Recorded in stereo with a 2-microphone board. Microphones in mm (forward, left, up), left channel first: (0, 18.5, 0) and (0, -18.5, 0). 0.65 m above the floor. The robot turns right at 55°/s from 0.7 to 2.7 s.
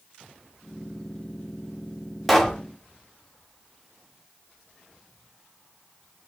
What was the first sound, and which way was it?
A pop, 5° left (ahead or behind).